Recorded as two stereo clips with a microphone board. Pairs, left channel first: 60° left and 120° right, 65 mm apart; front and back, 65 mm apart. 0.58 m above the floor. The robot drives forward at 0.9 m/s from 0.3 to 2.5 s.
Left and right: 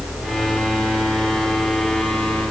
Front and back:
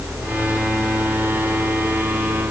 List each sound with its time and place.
Only background noise.